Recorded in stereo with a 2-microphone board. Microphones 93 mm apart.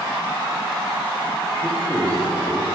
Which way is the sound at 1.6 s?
20° left (ahead or behind).